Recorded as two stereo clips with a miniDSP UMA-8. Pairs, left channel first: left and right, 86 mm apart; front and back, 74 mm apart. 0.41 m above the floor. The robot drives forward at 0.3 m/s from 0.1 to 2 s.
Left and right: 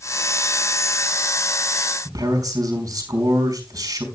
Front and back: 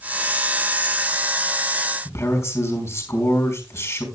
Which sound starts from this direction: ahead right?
A man speaking, at 2.0 s.